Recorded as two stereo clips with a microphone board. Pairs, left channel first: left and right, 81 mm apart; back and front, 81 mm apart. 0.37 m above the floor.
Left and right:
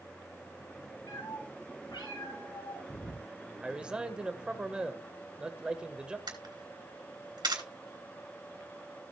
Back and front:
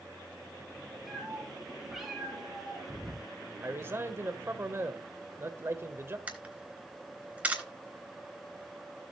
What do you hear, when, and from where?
1.1 s a cat meowing: 85° left, 4.5 m
3.6 s a man speaking: 20° right, 1.3 m
6.3 s a camera shutter: 70° right, 3.5 m